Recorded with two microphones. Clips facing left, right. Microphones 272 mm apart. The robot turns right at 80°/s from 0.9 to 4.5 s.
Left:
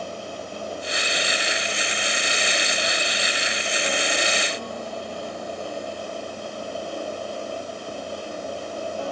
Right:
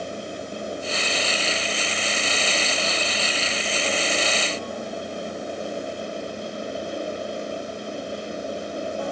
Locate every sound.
Only background noise.